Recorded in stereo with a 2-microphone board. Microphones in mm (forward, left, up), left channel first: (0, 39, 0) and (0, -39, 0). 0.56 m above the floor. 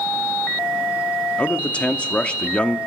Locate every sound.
1.4 s a man speaking: 15° left (ahead or behind), 0.7 m